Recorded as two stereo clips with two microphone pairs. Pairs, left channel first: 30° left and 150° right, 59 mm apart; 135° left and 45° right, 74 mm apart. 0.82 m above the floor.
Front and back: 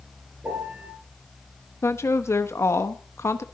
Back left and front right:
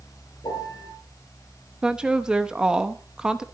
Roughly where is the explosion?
I don't hear an explosion.